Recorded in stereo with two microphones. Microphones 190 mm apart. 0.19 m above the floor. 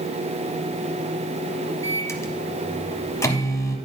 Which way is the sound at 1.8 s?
15° left (ahead or behind).